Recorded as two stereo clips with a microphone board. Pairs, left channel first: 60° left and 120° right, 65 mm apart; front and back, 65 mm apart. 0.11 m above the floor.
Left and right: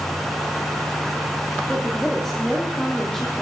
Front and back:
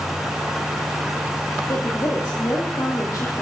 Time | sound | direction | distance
1.7 | a woman speaking | 25° right | 3.5 m